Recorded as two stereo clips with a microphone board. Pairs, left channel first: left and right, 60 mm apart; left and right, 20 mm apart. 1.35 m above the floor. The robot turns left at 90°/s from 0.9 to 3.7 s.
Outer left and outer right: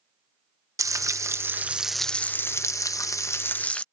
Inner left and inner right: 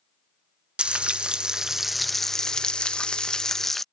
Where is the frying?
85° right; by 3.8 s 20° left.